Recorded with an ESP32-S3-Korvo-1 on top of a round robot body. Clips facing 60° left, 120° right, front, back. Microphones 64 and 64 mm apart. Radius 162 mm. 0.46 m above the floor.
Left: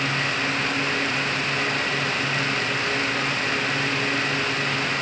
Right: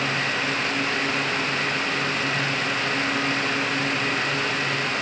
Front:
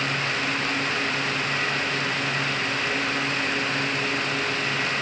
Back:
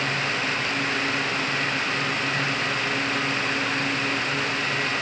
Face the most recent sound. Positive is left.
No sound to turn to.